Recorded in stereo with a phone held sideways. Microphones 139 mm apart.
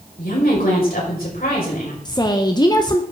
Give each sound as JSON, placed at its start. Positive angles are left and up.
{"t": 0.2, "sound": "a woman speaking", "side_deg": 85, "distance_m": 4.5}
{"t": 2.0, "sound": "a woman speaking", "side_deg": 30, "distance_m": 0.7}